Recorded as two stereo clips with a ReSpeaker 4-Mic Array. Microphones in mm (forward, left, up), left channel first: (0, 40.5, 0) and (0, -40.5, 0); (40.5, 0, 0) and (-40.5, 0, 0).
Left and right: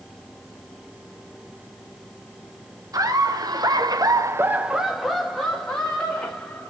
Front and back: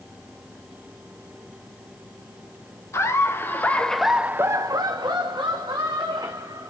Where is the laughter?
50° right, 1.4 m; by 6.7 s 160° left, 2.5 m.